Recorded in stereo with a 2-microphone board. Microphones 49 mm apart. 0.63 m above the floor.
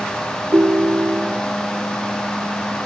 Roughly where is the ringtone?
Right.